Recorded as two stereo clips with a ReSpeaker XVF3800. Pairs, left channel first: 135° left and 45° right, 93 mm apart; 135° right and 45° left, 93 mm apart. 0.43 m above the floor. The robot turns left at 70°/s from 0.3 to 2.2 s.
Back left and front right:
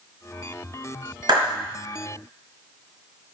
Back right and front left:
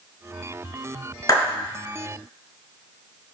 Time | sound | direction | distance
1.3 | a clap | 85° right | 3.5 m